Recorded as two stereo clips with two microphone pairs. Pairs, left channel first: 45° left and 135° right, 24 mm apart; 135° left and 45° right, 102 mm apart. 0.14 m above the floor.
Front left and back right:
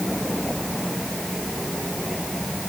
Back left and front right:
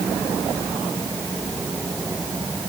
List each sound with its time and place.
Only background noise.